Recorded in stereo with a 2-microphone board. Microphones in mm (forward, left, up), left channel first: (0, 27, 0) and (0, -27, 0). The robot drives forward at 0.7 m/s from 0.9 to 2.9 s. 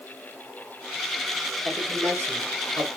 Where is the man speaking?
50° right (ahead or behind), 5 m; by 2.9 s 60° right (ahead or behind), 4.5 m.